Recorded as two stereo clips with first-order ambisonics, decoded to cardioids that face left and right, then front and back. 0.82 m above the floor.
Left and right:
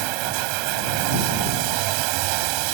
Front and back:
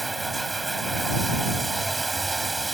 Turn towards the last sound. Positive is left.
turn(degrees=-100)